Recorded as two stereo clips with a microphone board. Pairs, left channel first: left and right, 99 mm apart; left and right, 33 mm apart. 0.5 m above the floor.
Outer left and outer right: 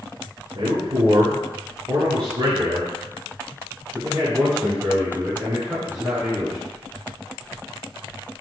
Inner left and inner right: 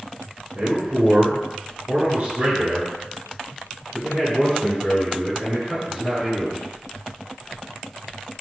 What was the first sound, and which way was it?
A man speaking, 65° right (ahead or behind).